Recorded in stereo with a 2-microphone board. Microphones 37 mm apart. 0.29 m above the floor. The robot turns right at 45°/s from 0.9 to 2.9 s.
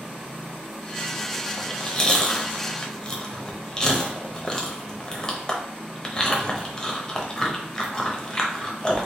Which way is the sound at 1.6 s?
15° left (ahead or behind).